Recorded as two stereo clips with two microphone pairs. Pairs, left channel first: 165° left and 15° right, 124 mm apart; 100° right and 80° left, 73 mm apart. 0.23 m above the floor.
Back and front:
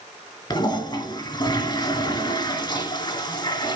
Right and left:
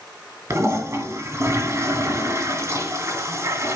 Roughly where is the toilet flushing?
Behind left.